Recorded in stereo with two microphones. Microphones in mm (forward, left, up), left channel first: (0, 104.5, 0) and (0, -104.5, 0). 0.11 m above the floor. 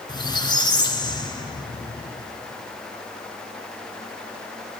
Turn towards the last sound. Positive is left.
turn(degrees=20)  # may be behind; listen again after turning